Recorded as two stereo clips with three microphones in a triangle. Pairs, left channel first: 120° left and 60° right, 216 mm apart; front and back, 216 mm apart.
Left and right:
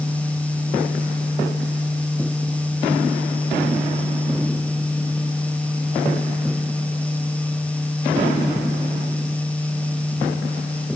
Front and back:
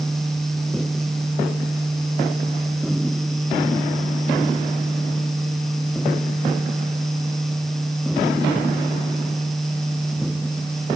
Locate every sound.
Only background noise.